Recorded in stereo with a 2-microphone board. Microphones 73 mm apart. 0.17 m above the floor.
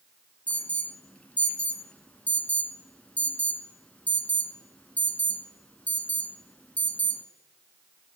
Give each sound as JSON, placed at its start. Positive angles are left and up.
{"t": 0.5, "sound": "an alarm", "side_deg": 20, "distance_m": 1.1}